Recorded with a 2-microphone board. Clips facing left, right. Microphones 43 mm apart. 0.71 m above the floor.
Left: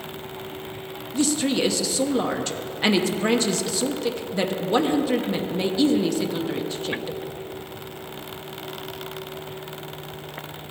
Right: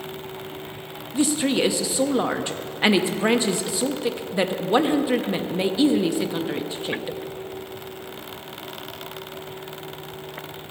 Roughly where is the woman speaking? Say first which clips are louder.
Right 1 dB; centre.